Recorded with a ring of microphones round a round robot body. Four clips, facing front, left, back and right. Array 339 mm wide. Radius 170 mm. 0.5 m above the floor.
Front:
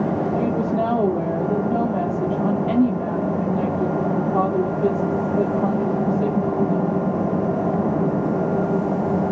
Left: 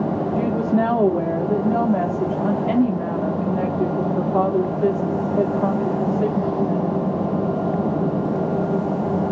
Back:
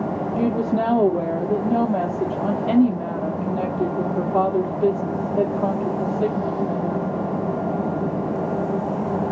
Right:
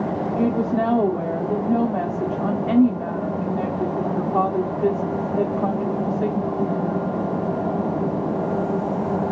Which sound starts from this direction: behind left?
A woman speaking, at 0.4 s.